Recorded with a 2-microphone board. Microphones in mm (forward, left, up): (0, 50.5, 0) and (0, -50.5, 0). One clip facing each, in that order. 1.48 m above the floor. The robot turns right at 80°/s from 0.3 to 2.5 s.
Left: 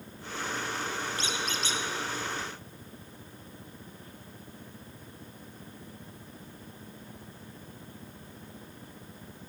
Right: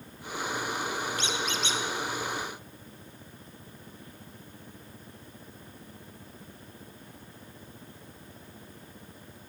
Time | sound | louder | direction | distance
1.2 | a squeak | right 2 dB | 65° left | 1.0 m